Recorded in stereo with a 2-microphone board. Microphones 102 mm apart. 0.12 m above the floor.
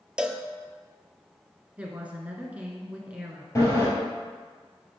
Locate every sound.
0.2 s a cowbell: 10° right (ahead or behind), 0.5 m
1.8 s a woman speaking: 15° right (ahead or behind), 1.2 m
3.5 s a sliding door: 25° left (ahead or behind), 2.5 m